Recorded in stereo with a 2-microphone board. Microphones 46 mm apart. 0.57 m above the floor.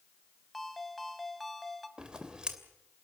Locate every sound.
0.5 s a ringtone: centre (ahead or behind), 1.9 m
2.0 s scissors: 20° right (ahead or behind), 2.5 m